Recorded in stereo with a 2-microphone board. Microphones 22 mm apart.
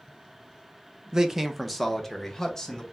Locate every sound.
1.1 s a man speaking: 30° right (ahead or behind), 0.5 m; by 2.8 s 15° left (ahead or behind), 1.3 m